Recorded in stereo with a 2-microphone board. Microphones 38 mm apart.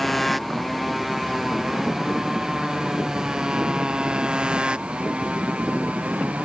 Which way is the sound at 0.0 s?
Centre (ahead or behind).